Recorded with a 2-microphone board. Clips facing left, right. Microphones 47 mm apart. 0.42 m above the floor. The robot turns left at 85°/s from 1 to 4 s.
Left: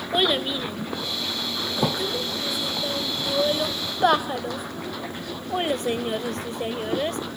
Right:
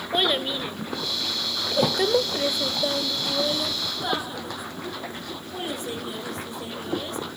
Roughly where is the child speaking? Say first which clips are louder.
Left 1 dB; centre.